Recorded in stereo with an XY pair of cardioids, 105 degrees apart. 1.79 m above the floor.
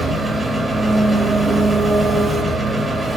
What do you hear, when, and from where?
0.0 s an engine running: 20° right, 3 m